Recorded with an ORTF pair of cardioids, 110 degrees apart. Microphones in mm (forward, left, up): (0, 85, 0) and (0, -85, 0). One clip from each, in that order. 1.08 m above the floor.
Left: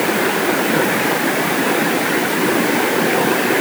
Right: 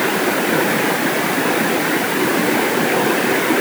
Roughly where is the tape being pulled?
No tape being pulled in this recording.